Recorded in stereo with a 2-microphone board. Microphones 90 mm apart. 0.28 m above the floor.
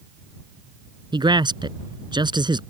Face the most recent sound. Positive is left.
turn(degrees=-55)  # may be behind; listen again after turning